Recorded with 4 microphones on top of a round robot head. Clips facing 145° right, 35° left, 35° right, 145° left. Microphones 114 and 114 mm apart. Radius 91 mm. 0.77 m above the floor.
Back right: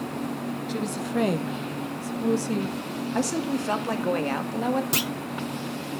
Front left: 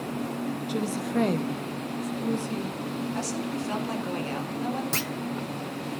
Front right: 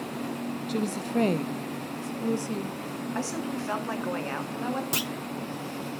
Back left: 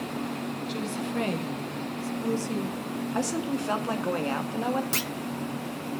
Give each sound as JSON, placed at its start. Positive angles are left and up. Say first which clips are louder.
{"t": 0.7, "sound": "a woman speaking", "louder": "even, front right 5 dB", "azimuth_deg": -35, "distance_m": 1.1}
{"t": 3.1, "sound": "a woman speaking", "louder": "back right 5 dB, back left 3 dB", "azimuth_deg": -145, "distance_m": 2.0}
{"t": 4.9, "sound": "a clunk", "louder": "back right 3 dB, even", "azimuth_deg": -90, "distance_m": 0.5}